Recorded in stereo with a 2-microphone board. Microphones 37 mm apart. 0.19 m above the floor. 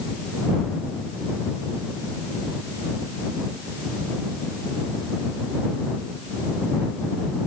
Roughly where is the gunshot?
No gunshot in this recording.